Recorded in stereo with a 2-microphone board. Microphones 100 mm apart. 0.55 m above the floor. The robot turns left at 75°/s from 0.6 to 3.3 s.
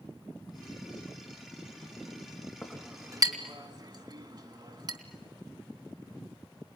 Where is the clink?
5° left (ahead or behind), 3 m; by 5.0 s 45° right (ahead or behind), 3 m.